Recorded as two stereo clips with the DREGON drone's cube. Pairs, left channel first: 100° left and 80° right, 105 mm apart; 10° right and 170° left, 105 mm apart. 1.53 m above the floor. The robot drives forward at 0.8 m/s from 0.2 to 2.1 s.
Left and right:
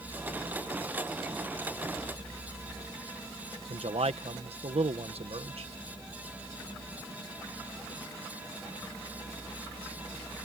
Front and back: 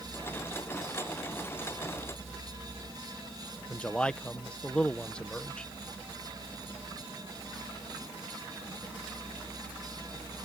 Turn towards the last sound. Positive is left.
turn(degrees=-90)